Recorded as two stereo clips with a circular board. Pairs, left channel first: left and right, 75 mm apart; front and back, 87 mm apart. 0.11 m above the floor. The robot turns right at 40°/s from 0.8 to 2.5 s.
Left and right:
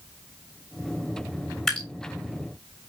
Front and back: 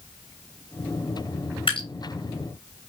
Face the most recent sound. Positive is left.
turn(degrees=40)